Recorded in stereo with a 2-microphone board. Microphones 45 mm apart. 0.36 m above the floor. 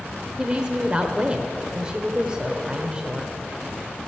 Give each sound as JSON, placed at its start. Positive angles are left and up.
{"t": 0.4, "sound": "a woman speaking", "side_deg": -15, "distance_m": 1.0}